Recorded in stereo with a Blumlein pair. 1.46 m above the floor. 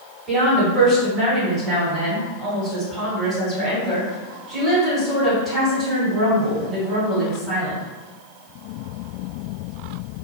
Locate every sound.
0.3 s a woman speaking: 20° right, 1.5 m